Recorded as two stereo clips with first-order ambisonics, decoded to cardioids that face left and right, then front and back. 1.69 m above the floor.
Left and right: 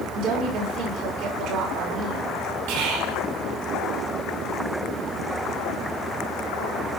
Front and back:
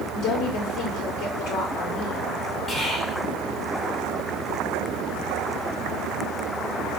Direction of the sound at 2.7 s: 80° right.